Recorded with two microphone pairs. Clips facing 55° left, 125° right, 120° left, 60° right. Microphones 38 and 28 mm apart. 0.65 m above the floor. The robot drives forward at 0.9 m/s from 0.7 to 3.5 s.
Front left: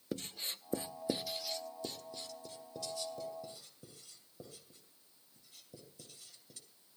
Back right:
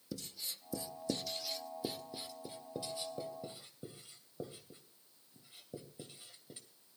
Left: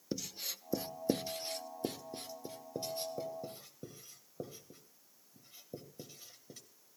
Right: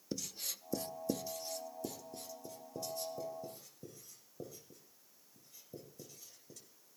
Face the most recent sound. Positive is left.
turn(degrees=175)